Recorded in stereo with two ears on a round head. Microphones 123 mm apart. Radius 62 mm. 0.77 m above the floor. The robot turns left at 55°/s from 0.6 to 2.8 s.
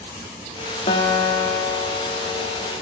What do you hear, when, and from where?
0.9 s a guitar: 135° left, 0.9 m; by 2.7 s 30° left, 0.9 m